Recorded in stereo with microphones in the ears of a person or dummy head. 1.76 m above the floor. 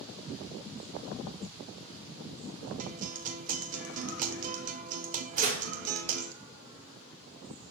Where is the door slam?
50° right (ahead or behind), 5 m.